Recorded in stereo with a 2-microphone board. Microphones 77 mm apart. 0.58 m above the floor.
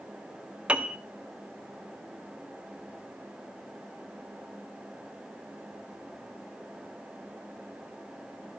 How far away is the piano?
About 0.6 m.